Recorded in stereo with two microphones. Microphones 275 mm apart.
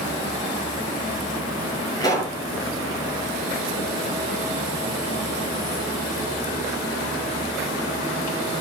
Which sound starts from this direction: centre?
A pop, at 2.0 s.